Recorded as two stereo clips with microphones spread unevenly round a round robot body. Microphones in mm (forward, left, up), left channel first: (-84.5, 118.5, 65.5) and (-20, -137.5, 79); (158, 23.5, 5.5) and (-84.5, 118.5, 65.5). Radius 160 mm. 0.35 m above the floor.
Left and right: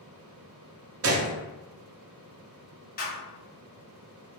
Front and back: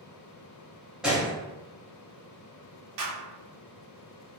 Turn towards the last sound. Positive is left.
turn(degrees=160)